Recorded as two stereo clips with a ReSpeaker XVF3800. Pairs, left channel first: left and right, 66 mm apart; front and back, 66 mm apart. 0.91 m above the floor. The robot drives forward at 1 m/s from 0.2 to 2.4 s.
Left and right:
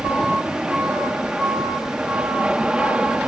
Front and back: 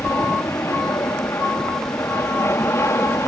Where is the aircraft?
20° right.